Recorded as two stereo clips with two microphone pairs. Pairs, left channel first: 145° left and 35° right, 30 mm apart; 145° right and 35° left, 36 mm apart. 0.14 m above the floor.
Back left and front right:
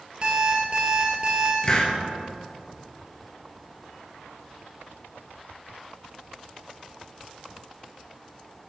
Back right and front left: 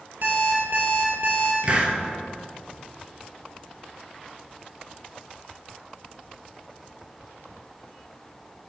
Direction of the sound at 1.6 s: 85° left.